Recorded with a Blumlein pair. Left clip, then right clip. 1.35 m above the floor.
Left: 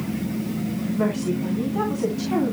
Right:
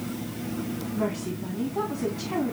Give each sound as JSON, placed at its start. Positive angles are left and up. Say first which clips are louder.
{"t": 0.9, "sound": "a woman speaking", "louder": "left 6 dB", "azimuth_deg": 10, "distance_m": 3.0}